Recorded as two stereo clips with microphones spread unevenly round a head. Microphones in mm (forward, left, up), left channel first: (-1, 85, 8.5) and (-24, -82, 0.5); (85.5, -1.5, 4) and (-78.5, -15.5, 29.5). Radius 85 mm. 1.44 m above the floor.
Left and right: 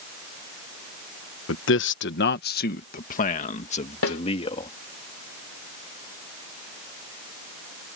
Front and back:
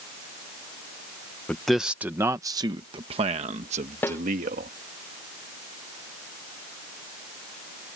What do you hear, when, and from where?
1.5 s a man speaking: 90° left; by 4.7 s 140° left
4.0 s a snare drum: 85° left